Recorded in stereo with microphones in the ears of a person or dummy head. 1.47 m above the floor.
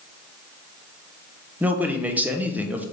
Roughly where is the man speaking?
Centre.